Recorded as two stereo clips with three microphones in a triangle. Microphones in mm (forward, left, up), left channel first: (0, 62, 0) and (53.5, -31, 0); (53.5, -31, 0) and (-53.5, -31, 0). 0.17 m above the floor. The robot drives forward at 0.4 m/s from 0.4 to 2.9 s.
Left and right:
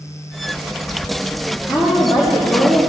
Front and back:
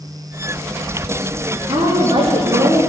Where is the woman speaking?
150° right, 5.5 m.